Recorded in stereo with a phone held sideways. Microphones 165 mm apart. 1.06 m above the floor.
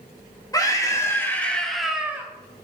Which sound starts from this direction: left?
A scream, at 0.5 s.